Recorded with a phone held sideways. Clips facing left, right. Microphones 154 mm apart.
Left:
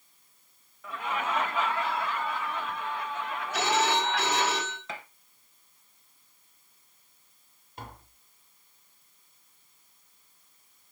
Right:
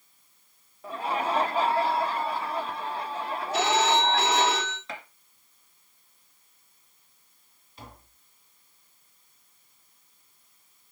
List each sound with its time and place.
0.8 s laughter: 30° right (ahead or behind), 0.8 m
3.5 s a phone ringing: 25° right (ahead or behind), 4 m
4.9 s a gunshot: centre (ahead or behind), 2.5 m
7.8 s tapping: 50° left (ahead or behind), 2.5 m